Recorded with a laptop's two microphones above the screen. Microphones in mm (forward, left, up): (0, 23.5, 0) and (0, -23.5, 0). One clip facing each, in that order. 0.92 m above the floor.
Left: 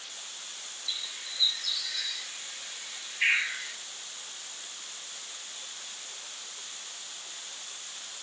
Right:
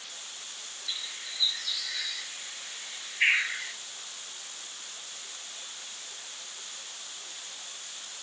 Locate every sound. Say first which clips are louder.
0.9 s a bird: even; 30° right (ahead or behind), 1.1 m